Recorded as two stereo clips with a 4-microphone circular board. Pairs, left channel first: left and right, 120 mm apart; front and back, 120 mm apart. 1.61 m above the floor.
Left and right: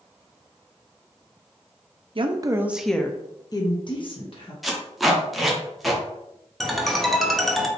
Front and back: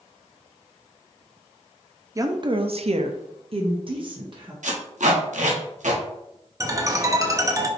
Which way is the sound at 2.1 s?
120° right.